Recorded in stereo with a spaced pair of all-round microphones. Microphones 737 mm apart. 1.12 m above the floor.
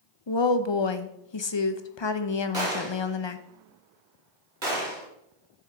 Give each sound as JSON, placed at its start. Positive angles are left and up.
{"t": 0.3, "sound": "a woman speaking", "side_deg": 40, "distance_m": 0.6}
{"t": 2.5, "sound": "a gunshot", "side_deg": -80, "distance_m": 2.5}